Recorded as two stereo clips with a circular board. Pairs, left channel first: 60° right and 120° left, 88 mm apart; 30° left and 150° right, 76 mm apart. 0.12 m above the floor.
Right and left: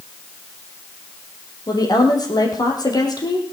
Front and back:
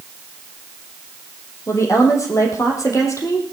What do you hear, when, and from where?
1.7 s a woman speaking: 15° right, 5 m